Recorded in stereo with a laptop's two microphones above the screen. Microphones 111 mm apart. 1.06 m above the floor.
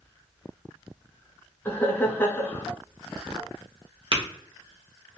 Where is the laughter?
20° left (ahead or behind), 0.8 m.